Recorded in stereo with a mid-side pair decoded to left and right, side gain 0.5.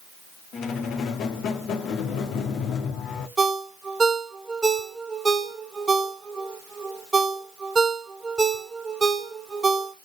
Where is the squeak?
65° left, 1.0 m.